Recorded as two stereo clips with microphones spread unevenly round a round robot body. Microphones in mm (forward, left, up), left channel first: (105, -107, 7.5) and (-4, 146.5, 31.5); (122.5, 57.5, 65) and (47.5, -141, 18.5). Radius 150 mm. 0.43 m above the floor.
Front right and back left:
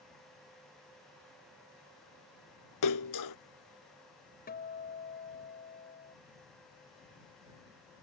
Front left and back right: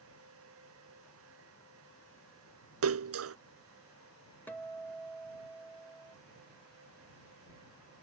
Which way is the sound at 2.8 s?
100° right.